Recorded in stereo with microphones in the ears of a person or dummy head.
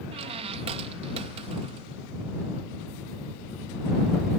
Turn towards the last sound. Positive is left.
turn(degrees=-30)  # may be behind; listen again after turning